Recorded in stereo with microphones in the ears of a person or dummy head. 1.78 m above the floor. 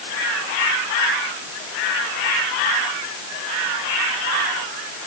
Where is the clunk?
I don't hear a clunk.